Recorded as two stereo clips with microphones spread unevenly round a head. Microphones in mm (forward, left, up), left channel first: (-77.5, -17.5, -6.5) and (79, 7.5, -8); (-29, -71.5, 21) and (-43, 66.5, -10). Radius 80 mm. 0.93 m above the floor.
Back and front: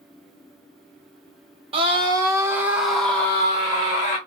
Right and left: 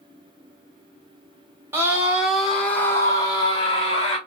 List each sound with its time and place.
1.7 s a scream: 45° left, 1.1 m; by 4.2 s 130° right, 1.2 m